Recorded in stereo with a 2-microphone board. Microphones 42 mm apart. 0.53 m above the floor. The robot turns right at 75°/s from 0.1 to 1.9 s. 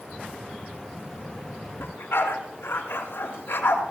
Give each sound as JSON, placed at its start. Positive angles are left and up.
{"t": 1.8, "sound": "a dog barking", "side_deg": 85, "distance_m": 2.5}